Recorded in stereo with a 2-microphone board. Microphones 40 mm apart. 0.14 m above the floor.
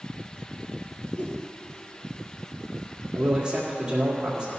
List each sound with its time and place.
1.2 s a whoosh: 35° left (ahead or behind), 1.8 m
3.1 s a man speaking: 15° right (ahead or behind), 2.5 m